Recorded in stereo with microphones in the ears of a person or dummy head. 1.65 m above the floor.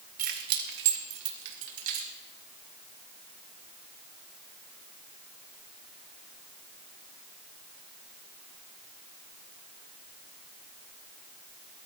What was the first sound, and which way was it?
Keys jangling, 45° right (ahead or behind).